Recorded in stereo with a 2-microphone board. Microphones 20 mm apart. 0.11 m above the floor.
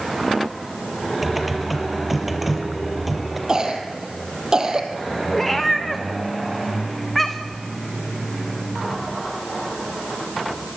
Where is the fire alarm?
I don't hear a fire alarm.